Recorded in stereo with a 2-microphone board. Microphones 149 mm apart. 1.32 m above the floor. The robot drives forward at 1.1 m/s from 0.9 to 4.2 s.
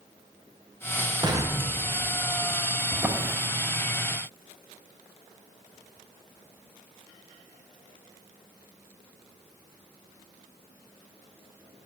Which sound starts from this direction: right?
An explosion, at 1.2 s.